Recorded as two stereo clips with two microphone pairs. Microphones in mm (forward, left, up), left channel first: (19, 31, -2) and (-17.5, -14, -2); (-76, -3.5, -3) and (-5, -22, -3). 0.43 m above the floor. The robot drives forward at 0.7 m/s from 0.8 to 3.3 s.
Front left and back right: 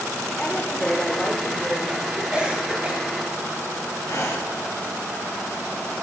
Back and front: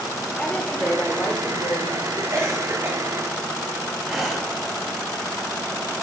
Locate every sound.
0.4 s a woman speaking: 105° left, 1.4 m; by 2.2 s 150° left, 1.9 m
2.3 s a cough: 55° right, 2.5 m; by 3.0 s 65° right, 2.5 m
4.0 s breathing: 75° left, 2.5 m